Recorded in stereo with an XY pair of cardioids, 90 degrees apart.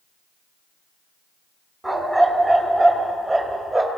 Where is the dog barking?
20° right, 3 m; by 3.9 s 35° right, 4 m.